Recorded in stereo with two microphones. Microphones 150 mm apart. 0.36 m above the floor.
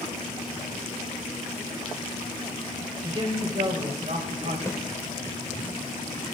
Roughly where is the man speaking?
Right.